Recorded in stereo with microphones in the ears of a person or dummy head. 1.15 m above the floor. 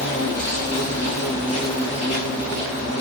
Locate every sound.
0.0 s an insect: 5° right (ahead or behind), 1.2 m